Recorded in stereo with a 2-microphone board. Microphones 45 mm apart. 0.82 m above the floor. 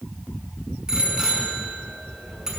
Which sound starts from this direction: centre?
A bicycle bell, at 0.9 s.